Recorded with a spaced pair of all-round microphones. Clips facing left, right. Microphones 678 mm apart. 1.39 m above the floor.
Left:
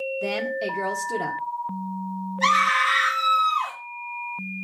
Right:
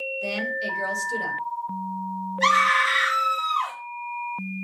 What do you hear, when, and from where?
0.2 s a woman speaking: 75° left (ahead or behind), 1.6 m
2.4 s a scream: 45° right (ahead or behind), 2.5 m